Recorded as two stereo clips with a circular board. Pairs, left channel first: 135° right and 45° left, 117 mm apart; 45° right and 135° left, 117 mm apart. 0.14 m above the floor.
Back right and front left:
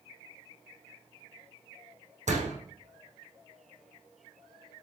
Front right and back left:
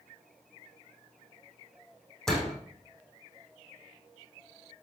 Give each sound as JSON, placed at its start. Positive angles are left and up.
{"t": 2.3, "sound": "a door slam", "azimuth_deg": 40, "distance_m": 6.0}